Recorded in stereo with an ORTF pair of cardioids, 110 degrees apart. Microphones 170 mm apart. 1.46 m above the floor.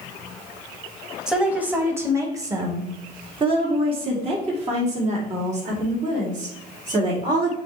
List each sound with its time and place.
1.3 s a woman speaking: 5° right, 1.7 m; by 7.6 s 50° right, 4 m